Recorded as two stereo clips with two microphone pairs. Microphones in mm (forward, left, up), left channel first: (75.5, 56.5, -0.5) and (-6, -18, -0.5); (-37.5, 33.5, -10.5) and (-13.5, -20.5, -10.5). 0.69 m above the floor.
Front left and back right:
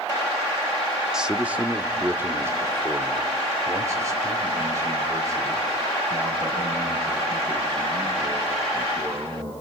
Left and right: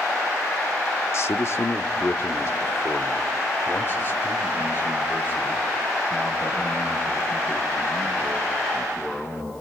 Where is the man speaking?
135° left, 0.8 m; by 9.5 s 165° left, 5.5 m.